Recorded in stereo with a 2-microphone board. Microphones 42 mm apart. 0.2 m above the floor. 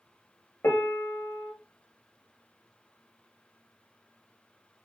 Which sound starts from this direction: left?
A piano, at 0.6 s.